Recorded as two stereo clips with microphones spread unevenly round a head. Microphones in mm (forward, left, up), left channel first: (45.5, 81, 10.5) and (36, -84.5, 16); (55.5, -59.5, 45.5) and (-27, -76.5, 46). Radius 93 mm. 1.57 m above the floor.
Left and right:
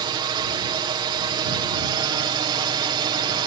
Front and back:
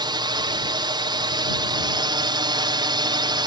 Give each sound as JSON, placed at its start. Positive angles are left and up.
{"t": 0.0, "sound": "a drone", "azimuth_deg": -160}